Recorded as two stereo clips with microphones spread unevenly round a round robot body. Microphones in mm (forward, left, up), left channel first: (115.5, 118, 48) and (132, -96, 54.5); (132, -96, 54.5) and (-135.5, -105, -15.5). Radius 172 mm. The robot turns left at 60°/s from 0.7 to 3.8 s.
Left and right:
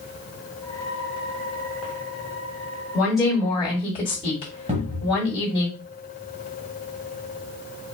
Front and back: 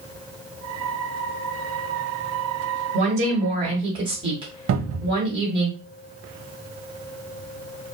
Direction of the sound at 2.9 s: 160° right.